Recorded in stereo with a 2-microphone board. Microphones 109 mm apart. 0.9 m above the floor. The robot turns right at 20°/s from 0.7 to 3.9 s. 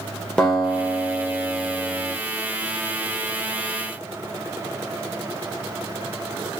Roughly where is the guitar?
Centre.